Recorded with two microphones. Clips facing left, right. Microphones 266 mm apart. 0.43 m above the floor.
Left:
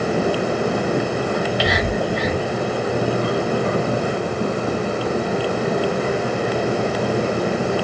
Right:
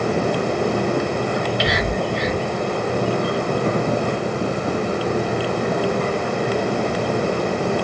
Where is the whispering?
Centre (ahead or behind), 1.8 m.